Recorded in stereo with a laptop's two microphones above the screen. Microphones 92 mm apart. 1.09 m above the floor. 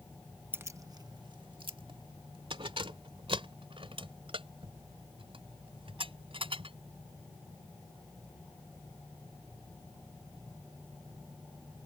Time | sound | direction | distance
0.5 | keys jangling | 25° right (ahead or behind) | ?